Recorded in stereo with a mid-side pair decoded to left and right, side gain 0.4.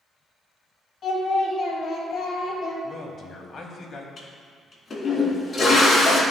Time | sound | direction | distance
1.0 | singing | 60° left | 2.5 m
2.8 | a man speaking | 50° left | 1.7 m
4.2 | a toilet flushing | 40° left | 2 m